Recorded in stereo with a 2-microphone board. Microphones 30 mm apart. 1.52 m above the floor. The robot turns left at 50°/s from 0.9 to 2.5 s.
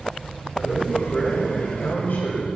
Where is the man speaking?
155° left, 5 m; by 2.5 s 75° left, 5 m.